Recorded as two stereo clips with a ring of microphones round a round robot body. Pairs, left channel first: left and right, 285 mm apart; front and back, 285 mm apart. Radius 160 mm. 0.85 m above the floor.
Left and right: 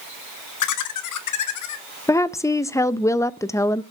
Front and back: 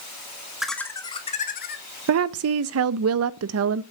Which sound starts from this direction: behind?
A woman speaking, at 2.1 s.